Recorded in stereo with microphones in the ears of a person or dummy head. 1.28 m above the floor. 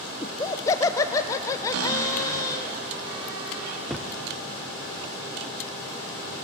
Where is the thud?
5° right (ahead or behind), 1.2 m.